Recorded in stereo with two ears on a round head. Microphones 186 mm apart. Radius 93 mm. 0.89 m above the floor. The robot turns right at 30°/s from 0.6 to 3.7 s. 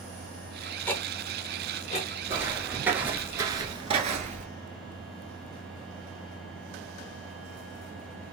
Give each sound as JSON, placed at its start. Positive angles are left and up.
{"t": 0.9, "sound": "ticking", "side_deg": 5, "distance_m": 0.7}
{"t": 2.3, "sound": "footsteps", "side_deg": -10, "distance_m": 1.1}